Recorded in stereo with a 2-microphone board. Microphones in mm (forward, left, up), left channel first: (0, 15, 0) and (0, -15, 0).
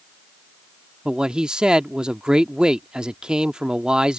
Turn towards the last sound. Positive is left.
turn(degrees=-25)  # may be behind; listen again after turning